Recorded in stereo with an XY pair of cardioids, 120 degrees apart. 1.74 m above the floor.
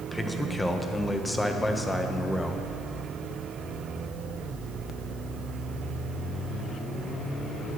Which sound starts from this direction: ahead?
A man speaking, at 0.1 s.